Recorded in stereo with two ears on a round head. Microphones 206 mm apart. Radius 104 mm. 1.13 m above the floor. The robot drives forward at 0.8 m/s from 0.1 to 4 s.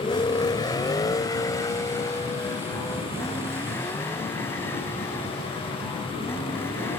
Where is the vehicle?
20° left (ahead or behind); by 7.0 s 10° left (ahead or behind).